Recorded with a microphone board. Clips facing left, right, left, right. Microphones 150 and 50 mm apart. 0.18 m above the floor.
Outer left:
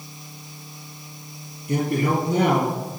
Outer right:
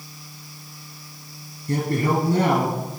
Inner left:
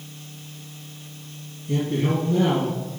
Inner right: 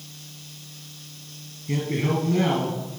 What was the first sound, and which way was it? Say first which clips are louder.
A man speaking: even, inner left 2 dB; 65° right (ahead or behind).